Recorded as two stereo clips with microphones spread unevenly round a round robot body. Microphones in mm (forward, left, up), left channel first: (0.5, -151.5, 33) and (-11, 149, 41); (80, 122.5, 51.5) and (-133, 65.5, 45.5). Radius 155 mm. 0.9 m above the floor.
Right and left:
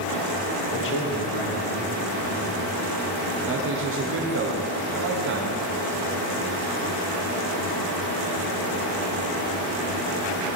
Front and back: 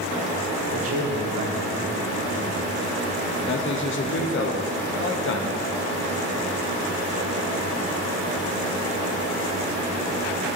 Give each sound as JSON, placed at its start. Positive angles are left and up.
{"t": 0.7, "sound": "a man speaking", "azimuth_deg": -135, "distance_m": 0.9}
{"t": 3.5, "sound": "a man speaking", "azimuth_deg": 45, "distance_m": 1.0}